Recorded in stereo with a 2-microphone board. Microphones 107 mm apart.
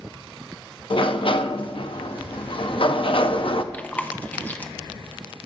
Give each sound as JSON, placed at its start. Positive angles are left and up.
{"t": 0.9, "sound": "a sliding door", "side_deg": 60, "distance_m": 0.7}
{"t": 3.7, "sound": "chewing", "side_deg": 15, "distance_m": 0.9}